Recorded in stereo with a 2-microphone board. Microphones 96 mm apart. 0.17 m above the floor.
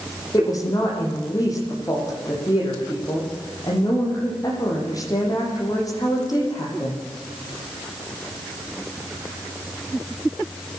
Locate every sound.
0.3 s a woman speaking: 35° left (ahead or behind), 8.5 m